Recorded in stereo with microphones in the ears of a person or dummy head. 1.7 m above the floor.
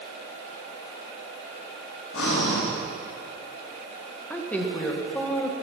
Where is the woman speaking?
5° left (ahead or behind), 1.8 m.